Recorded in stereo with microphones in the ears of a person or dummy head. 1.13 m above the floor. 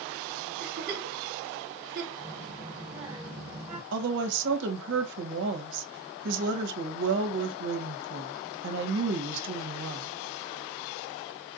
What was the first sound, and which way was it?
A giggle, 45° right (ahead or behind).